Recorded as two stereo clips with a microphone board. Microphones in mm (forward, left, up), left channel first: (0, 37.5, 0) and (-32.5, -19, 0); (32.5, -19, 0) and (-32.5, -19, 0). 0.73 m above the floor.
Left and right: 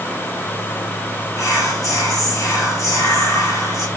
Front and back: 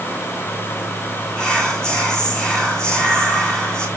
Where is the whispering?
80° left, 2.5 m.